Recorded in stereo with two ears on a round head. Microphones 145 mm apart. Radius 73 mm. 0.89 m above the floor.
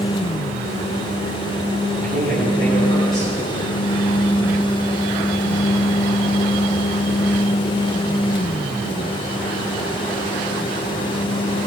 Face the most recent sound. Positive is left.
turn(degrees=30)  # may be behind; listen again after turning